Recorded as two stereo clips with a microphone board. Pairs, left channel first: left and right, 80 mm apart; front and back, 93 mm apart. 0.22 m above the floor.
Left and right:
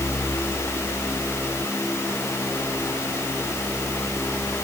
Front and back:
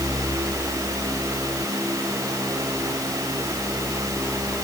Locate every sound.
Only background noise.